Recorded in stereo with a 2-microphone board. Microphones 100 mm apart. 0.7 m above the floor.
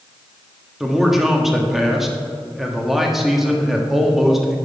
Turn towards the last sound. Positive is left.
turn(degrees=-5)  # may be behind; listen again after turning